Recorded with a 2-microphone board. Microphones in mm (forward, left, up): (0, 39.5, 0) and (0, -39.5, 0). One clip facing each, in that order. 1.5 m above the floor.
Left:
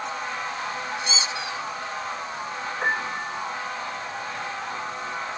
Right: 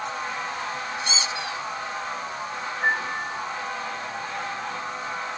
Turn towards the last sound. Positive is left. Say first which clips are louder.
# right 2 dB
turn(degrees=70)  # may be behind; listen again after turning